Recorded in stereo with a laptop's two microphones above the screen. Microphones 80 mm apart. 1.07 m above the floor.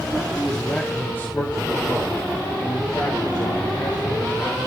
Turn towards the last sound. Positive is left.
turn(degrees=70)  # may be behind; listen again after turning